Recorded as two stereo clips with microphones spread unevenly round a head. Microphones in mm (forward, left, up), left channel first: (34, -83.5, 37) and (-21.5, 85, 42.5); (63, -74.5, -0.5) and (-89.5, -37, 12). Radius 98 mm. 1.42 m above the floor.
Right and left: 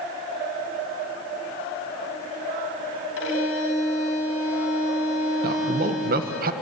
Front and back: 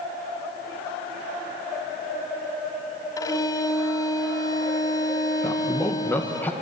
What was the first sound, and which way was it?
A violin, 85° right.